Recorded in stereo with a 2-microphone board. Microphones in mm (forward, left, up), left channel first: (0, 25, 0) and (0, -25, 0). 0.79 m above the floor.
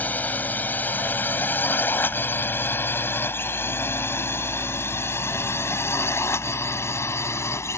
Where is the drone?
35° left (ahead or behind); by 7.8 s 65° left (ahead or behind).